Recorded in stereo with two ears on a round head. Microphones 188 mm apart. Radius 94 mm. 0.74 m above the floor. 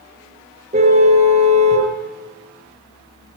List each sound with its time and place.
0.7 s a car horn: 30° right (ahead or behind), 5.5 m